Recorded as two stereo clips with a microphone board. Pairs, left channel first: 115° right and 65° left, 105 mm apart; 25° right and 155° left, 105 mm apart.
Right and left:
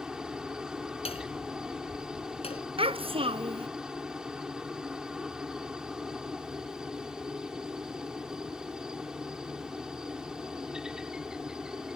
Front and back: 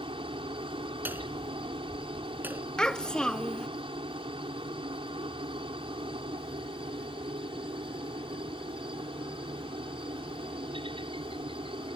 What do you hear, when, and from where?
0.0 s a helicopter: 150° left
1.1 s hammering: 130° right
2.8 s a child speaking: 60° left